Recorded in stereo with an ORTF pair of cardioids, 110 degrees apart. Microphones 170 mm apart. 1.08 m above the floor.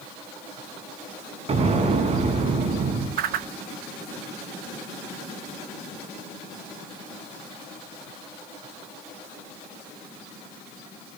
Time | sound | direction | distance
1.5 | an explosion | 40° right | 4.5 m
3.2 | a whoosh | 65° right | 1.3 m